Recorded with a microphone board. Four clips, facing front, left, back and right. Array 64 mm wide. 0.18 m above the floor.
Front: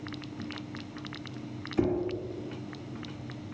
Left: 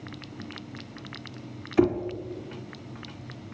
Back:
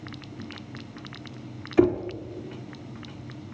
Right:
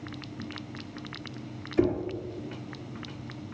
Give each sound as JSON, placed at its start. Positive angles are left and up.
{"t": 1.8, "sound": "knocking", "azimuth_deg": 140, "distance_m": 1.5}